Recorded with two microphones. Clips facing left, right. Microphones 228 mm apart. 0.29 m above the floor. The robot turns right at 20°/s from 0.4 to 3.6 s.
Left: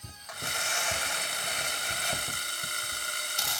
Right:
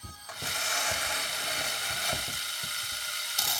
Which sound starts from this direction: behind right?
Tearing paper, at 0.3 s.